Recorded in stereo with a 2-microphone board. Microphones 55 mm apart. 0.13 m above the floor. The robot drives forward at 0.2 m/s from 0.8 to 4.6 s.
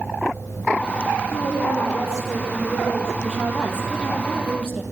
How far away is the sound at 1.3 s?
About 6.5 m.